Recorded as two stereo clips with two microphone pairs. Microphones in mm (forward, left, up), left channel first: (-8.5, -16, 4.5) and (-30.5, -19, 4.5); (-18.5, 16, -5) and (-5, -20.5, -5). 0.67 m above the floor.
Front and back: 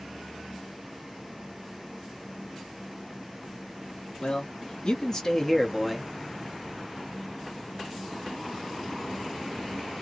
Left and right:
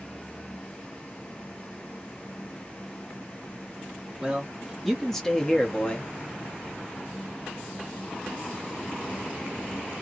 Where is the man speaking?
5° left, 1.5 m; by 6.1 s 115° left, 1.2 m.